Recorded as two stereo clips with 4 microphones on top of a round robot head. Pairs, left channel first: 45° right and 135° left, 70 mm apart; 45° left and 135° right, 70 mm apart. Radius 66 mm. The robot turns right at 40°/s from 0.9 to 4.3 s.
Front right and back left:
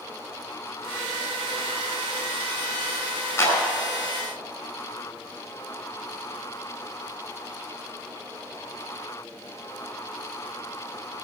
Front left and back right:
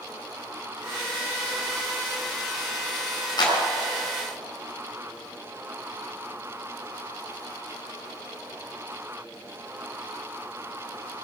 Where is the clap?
15° left, 4.5 m; by 3.6 s 20° left, 4.5 m.